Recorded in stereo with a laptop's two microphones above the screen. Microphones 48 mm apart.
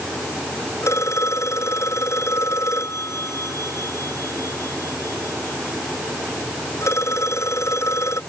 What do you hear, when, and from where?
0.8 s a phone ringing: 85° left